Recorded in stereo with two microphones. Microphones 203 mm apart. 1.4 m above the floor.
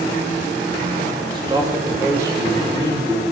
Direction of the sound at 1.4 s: 20° right (ahead or behind).